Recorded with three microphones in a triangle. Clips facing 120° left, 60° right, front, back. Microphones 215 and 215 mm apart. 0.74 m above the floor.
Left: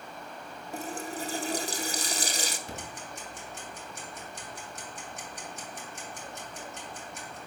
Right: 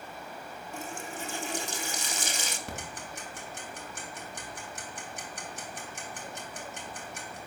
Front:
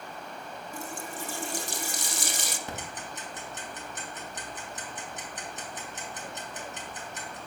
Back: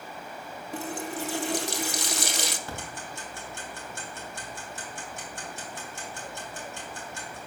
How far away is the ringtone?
No ringtone in this recording.